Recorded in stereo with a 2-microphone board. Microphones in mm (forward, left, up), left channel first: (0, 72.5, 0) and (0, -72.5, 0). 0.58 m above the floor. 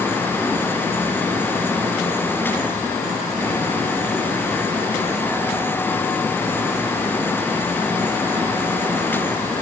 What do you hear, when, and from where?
Only background noise.